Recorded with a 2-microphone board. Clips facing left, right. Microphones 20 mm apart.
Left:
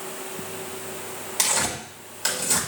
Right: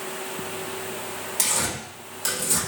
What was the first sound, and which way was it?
Tearing paper, 15° left (ahead or behind).